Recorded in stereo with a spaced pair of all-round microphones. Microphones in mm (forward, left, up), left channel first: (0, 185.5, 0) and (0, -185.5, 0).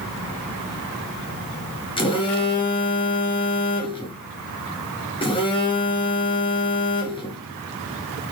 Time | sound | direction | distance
2.0 | a phone buzzing | 15° left (ahead or behind) | 0.8 m